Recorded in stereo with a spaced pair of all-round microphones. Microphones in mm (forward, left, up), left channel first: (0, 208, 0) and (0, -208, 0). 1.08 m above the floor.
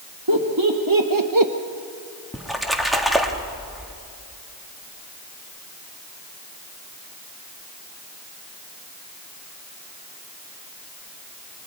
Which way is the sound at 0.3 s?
60° right (ahead or behind).